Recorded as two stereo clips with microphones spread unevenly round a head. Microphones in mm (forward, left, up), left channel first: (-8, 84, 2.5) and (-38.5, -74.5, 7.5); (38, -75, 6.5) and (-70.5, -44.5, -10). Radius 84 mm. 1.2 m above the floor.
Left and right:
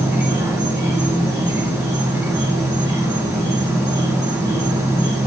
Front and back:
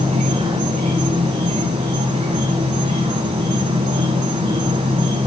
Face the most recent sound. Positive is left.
turn(degrees=-175)